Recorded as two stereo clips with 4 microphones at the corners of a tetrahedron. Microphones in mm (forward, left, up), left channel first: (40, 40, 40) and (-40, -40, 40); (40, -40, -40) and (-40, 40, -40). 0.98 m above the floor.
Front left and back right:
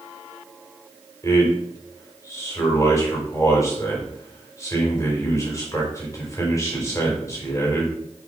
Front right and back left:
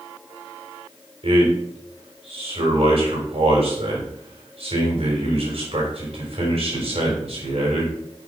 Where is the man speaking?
110° left, 4.5 m.